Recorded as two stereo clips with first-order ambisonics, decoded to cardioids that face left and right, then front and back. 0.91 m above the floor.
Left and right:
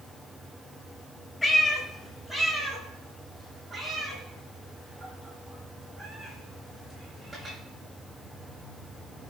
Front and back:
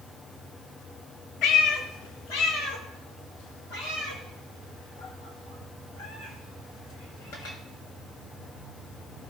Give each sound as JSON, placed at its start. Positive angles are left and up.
{"t": 1.4, "sound": "a cat meowing", "azimuth_deg": 15, "distance_m": 1.4}